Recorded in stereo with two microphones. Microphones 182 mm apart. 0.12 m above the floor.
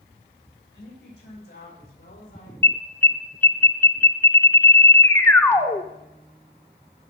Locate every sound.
0.7 s a woman speaking: 60° left (ahead or behind), 7.5 m; by 2.5 s 55° left (ahead or behind), 8.5 m
2.6 s an alarm: 10° left (ahead or behind), 0.9 m